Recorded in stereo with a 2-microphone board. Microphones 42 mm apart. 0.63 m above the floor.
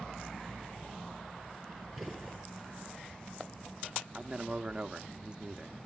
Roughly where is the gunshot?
Centre.